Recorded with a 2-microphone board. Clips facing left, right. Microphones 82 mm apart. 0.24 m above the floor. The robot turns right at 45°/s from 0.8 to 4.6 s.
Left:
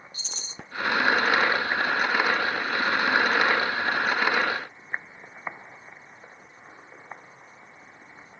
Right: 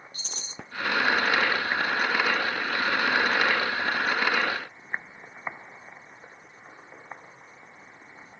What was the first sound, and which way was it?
A rattle, 50° right (ahead or behind).